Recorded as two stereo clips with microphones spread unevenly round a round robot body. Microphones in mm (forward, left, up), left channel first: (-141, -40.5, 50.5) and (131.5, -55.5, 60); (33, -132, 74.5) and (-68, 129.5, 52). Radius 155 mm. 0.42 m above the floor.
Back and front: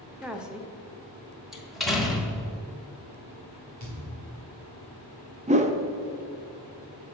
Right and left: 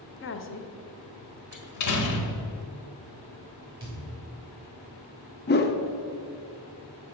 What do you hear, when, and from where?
0.2 s a woman speaking: 90° right, 0.9 m
1.5 s a door slam: 95° right, 1.5 m
3.8 s a thud: 35° left, 2 m
5.5 s a whoosh: 50° right, 0.8 m